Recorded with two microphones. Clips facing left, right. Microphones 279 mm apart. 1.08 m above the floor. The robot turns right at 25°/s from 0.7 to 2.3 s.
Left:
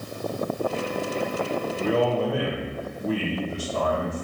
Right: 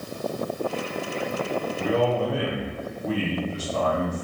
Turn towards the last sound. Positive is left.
turn(degrees=15)  # may be behind; listen again after turning